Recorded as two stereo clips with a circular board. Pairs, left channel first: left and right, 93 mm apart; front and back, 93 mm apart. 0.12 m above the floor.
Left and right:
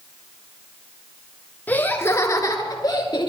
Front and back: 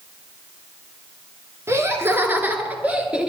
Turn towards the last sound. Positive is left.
turn(degrees=105)